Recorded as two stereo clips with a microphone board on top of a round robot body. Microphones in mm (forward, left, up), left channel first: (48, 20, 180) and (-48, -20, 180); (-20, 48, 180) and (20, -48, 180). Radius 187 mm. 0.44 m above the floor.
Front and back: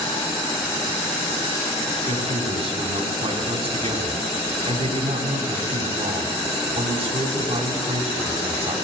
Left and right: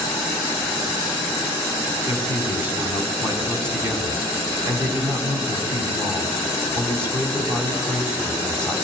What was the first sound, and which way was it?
A man speaking, 135° right.